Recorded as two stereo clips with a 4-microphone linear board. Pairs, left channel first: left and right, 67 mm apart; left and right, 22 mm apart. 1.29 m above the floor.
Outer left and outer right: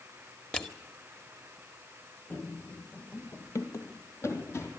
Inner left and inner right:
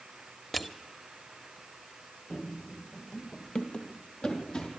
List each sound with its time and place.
0.5 s crushing: 15° left (ahead or behind), 1.8 m
2.3 s running footsteps: 30° left (ahead or behind), 1.9 m; by 4.7 s 40° left (ahead or behind), 3.5 m